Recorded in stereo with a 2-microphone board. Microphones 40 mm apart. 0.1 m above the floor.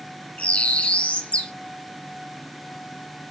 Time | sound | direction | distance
0.4 | a bird | 30° left (ahead or behind) | 0.7 m